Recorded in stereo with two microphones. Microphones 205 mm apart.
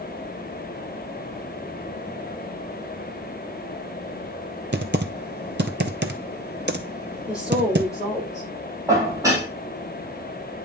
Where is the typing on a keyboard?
55° right (ahead or behind), 0.6 m.